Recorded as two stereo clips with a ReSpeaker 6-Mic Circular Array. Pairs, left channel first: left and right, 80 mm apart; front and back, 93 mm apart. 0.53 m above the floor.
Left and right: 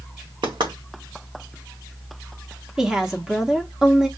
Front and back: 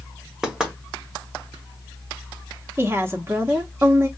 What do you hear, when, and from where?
0.4 s knocking: 95° right, 1.3 m
2.8 s a woman speaking: 165° right, 0.9 m